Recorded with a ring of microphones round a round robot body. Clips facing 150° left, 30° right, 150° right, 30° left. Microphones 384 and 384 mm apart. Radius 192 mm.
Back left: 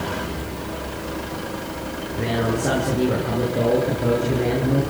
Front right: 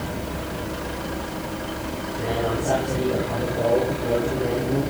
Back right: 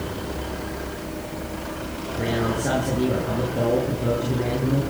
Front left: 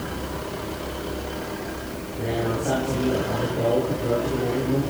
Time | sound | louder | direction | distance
2.1 | a man speaking | back left 3 dB, back right 1 dB | 175° left | 10 m